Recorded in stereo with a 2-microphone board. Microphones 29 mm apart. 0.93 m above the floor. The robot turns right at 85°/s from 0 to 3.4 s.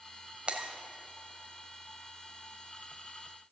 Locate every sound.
0.5 s breaking glass: 40° right (ahead or behind), 1.4 m; by 0.7 s 55° right (ahead or behind), 1.4 m